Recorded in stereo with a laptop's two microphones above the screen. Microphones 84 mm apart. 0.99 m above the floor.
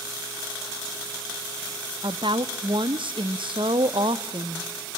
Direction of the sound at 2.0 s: 75° right (ahead or behind).